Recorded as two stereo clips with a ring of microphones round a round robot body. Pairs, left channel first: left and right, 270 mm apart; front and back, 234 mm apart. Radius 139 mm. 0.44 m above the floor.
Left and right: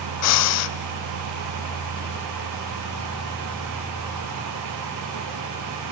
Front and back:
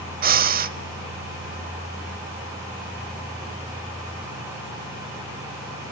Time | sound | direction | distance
0.2 | breathing | 125° left | 0.6 m